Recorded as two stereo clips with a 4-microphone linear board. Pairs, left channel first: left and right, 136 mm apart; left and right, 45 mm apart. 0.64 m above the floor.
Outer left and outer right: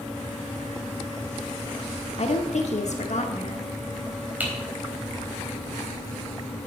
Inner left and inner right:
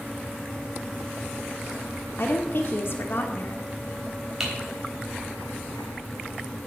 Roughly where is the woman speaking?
Left.